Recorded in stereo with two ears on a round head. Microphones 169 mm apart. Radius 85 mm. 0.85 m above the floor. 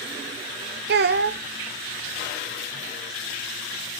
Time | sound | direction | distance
0.9 | a child speaking | 55° right (ahead or behind) | 0.6 m